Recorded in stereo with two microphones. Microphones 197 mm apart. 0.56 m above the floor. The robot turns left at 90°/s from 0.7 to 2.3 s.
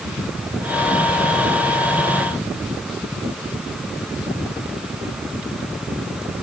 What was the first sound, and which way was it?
Only background noise.